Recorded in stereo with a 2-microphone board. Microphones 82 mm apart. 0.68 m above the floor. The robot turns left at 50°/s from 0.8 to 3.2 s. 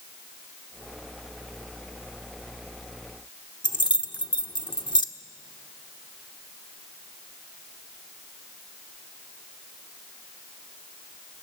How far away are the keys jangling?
About 1.1 m.